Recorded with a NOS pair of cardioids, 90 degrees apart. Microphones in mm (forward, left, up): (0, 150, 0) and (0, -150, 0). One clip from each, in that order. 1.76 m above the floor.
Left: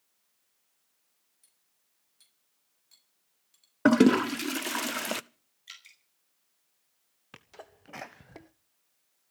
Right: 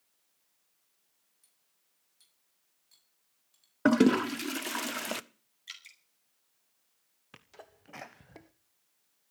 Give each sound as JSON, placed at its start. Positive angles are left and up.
{"t": 1.4, "sound": "cutlery clinking", "azimuth_deg": 20, "distance_m": 6.5}
{"t": 3.9, "sound": "a toilet flushing", "azimuth_deg": 10, "distance_m": 0.6}
{"t": 5.7, "sound": "dripping", "azimuth_deg": -15, "distance_m": 6.0}
{"t": 7.3, "sound": "a sneeze", "azimuth_deg": 15, "distance_m": 0.9}